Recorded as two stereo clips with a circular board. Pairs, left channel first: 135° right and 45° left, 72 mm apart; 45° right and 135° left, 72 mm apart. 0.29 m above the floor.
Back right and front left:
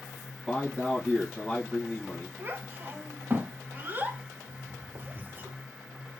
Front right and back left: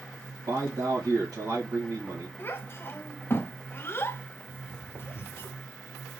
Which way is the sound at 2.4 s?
5° right.